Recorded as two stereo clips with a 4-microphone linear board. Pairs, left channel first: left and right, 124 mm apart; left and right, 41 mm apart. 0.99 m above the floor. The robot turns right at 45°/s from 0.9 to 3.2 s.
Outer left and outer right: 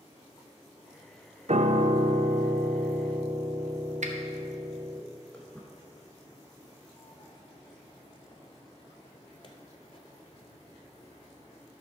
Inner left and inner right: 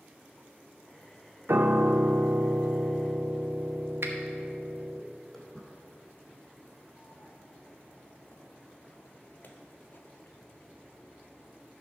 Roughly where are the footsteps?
Centre.